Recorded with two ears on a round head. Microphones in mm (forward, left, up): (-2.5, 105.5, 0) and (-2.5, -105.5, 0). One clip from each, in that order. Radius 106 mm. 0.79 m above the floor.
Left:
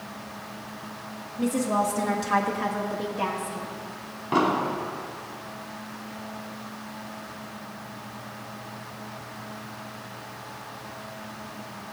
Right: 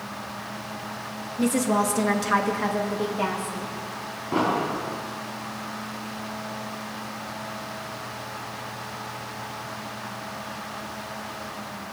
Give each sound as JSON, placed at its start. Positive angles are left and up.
{"t": 1.4, "sound": "a woman speaking", "side_deg": -35, "distance_m": 1.0}
{"t": 4.3, "sound": "an explosion", "side_deg": 50, "distance_m": 3.0}